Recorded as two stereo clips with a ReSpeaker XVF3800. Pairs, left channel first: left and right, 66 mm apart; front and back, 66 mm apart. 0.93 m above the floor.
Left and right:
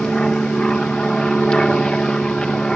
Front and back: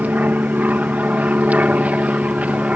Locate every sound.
0.0 s an aircraft: 155° left; by 2.8 s 150° left